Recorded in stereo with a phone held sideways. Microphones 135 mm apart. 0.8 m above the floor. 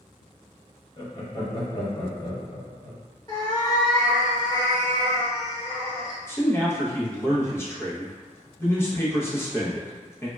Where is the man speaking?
15° left (ahead or behind), 0.7 m.